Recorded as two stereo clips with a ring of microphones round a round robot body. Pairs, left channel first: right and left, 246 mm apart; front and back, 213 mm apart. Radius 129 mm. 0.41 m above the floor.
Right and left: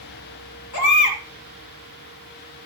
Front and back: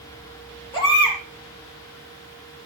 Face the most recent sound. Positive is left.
turn(degrees=-75)